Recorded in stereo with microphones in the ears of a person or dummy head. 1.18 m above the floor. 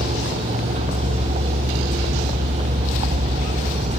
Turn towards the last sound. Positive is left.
turn(degrees=-30)  # may be behind; listen again after turning